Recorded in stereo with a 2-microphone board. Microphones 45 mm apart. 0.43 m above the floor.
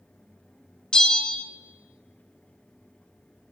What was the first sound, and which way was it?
A bell, 20° left (ahead or behind).